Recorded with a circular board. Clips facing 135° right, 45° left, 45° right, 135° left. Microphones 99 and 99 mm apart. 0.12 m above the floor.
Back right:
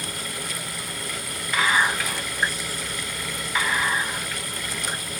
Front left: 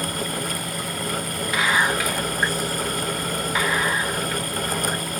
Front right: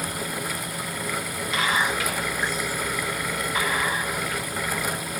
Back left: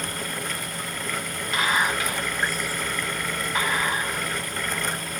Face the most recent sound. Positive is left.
turn(degrees=120)